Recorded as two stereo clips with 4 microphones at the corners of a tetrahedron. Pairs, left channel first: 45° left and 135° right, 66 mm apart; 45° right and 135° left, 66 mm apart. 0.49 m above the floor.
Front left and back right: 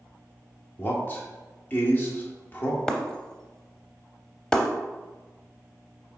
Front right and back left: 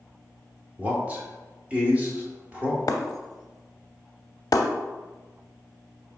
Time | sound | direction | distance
0.8 | a man speaking | 85° left | 1.0 m
2.9 | breaking glass | 35° right | 0.5 m